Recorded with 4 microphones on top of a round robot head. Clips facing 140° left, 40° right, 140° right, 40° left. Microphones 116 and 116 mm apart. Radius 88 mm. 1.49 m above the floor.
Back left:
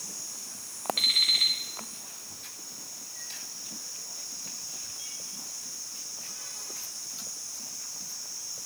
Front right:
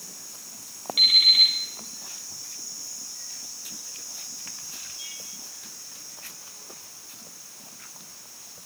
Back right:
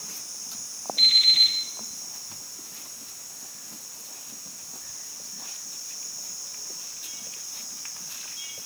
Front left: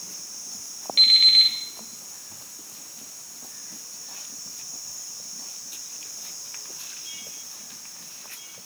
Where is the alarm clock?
35° left, 8 m.